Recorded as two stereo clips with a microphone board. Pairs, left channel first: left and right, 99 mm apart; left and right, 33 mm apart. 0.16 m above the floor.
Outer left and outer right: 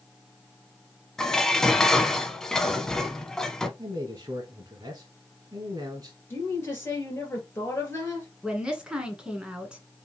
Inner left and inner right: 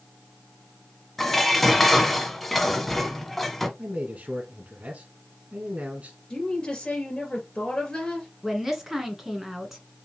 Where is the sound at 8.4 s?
10° right (ahead or behind), 1.4 m.